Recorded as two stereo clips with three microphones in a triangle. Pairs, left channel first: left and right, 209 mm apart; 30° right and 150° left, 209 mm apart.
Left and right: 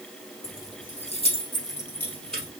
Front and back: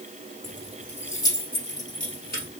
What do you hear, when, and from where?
0.4 s keys jangling: 75° left, 1.6 m; by 2.5 s straight ahead, 2.5 m